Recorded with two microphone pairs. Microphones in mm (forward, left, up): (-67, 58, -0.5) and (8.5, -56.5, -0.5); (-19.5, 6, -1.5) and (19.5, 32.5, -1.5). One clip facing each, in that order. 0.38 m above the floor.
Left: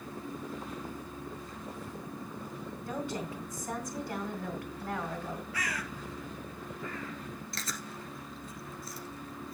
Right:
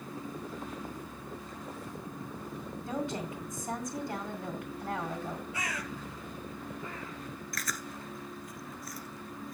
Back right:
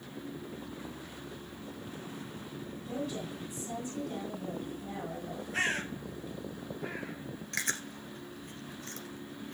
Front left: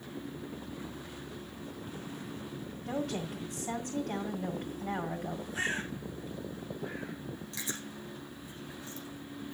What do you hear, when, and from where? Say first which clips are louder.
2.9 s a woman speaking: right 2 dB, front left 3 dB; 15° left, 2 m
5.5 s a bird: even, back right 3 dB; 125° right, 5 m
7.5 s chewing: right 1 dB, back right 4 dB; 175° right, 1.6 m